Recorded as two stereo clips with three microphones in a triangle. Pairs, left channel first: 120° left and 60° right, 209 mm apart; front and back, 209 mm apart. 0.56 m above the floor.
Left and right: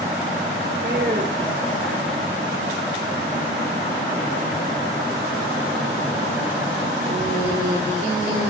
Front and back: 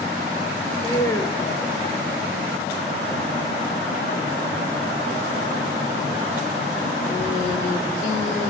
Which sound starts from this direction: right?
A woman speaking, at 0.8 s.